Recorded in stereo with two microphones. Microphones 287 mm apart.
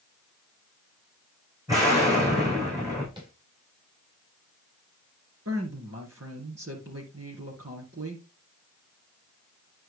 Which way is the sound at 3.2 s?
15° right (ahead or behind).